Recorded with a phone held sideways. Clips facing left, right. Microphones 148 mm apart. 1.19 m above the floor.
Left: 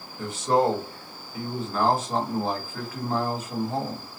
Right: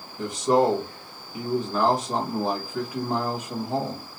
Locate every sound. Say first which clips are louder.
0.2 s a man speaking: right 2 dB; 15° right (ahead or behind), 1.5 m